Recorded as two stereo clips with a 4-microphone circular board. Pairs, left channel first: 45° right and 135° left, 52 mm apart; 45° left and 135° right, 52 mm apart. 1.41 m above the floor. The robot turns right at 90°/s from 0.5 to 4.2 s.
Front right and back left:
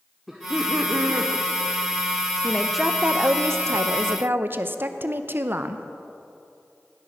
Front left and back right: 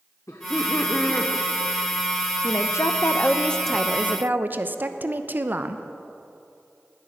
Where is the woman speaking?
20° left, 0.7 m; by 5.8 s 175° left, 0.7 m.